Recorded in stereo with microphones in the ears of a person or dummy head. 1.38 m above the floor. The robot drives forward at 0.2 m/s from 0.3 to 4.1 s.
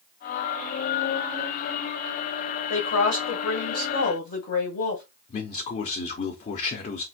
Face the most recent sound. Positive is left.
turn(degrees=40)  # may be behind; listen again after turning